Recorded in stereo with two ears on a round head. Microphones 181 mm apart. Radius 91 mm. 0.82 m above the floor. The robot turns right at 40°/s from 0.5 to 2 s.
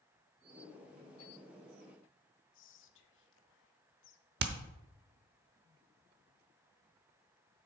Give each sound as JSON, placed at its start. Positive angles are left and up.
{"t": 2.5, "sound": "whispering", "side_deg": 60, "distance_m": 0.8}
{"t": 4.4, "sound": "hammering", "side_deg": -55, "distance_m": 0.8}